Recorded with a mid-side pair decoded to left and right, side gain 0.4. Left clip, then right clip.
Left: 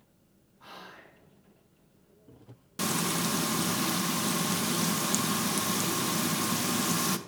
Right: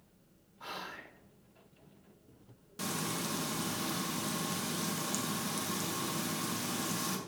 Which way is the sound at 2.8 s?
60° left.